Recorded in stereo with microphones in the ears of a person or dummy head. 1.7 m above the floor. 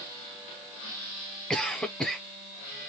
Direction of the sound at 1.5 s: 5° left (ahead or behind).